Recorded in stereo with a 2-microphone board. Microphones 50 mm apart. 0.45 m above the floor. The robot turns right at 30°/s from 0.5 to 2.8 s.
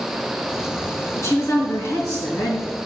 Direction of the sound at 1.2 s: 75° left.